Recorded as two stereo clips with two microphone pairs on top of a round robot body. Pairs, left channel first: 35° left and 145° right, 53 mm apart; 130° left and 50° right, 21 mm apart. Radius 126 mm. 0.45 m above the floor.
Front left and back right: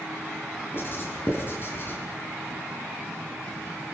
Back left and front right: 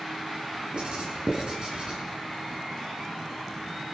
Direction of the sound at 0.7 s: 5° right.